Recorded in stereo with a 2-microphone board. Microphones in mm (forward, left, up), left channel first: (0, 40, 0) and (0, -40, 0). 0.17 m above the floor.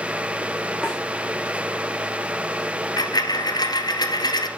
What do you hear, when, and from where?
0.8 s a snare drum: 5° right (ahead or behind), 7 m
3.0 s a dropped coin: 60° left (ahead or behind), 1.6 m